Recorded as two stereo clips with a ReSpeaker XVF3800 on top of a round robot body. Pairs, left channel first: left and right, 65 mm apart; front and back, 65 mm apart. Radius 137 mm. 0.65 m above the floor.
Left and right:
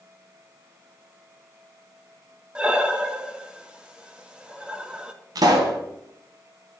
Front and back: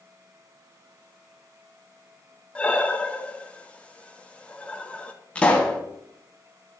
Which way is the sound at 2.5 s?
40° right.